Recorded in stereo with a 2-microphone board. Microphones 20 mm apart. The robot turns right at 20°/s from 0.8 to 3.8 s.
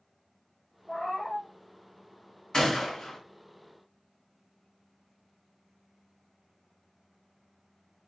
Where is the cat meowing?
65° left (ahead or behind), 1.0 m; by 1.5 s 80° left, 1.0 m.